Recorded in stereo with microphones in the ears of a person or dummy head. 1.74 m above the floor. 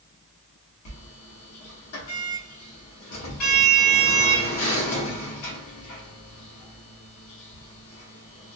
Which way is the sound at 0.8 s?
80° left.